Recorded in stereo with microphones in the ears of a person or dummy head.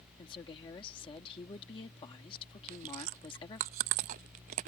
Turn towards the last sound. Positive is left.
turn(degrees=-35)  # may be behind; listen again after turning